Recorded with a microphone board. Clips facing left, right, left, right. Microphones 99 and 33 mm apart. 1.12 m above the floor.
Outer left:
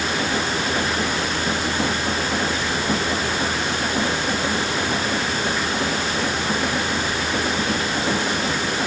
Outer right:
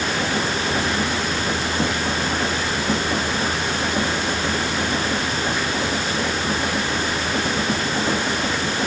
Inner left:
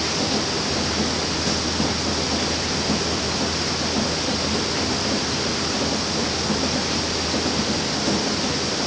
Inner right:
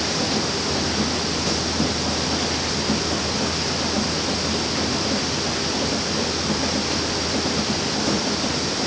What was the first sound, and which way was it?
Only background noise.